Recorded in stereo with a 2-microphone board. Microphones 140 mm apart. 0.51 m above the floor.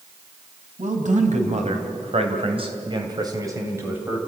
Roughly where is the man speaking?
Right.